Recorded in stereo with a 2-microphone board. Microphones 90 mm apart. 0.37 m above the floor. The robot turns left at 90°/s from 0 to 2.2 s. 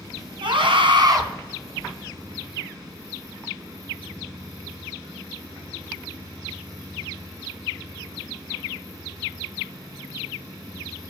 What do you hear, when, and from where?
0.4 s a scream: 70° right, 3.5 m; by 1.2 s 145° right, 3.5 m